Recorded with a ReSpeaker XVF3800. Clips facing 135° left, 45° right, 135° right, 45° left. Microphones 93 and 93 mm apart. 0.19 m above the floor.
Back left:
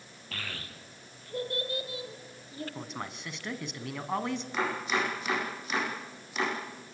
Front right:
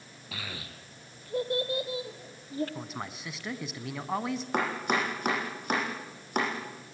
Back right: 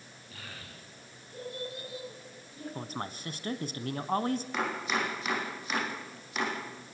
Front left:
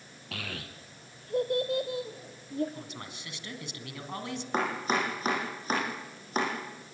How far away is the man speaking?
About 1.7 m.